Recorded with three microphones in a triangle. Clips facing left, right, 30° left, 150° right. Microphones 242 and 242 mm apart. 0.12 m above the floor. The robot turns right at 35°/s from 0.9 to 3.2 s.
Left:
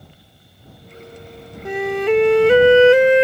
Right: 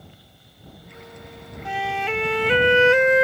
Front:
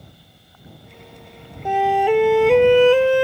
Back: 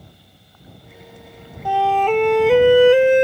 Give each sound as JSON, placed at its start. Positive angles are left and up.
{"t": 1.6, "sound": "a flute", "azimuth_deg": 90}